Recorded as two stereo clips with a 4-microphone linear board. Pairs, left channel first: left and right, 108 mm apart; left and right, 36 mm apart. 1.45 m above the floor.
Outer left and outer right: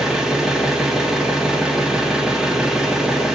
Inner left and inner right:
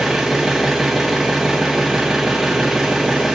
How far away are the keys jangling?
I don't hear keys jangling.